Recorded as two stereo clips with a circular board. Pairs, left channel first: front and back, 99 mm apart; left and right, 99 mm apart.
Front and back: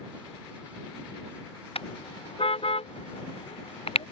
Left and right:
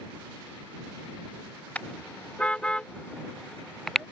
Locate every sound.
1.8 s a car horn: 15° left; by 4.1 s straight ahead